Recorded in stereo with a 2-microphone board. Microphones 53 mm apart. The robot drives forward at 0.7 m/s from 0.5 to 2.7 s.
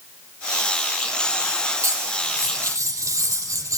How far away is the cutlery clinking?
About 3 m.